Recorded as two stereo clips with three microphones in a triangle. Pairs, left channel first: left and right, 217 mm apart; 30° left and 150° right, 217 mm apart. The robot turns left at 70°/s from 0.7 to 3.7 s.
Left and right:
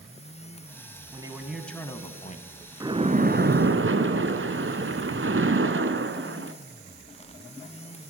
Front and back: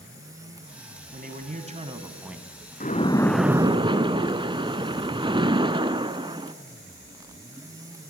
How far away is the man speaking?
About 1.9 m.